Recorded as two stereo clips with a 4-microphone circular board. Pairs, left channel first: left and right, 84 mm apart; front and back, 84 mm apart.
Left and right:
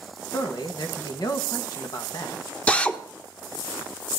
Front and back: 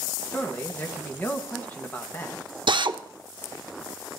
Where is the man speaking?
65° left, 1.7 m.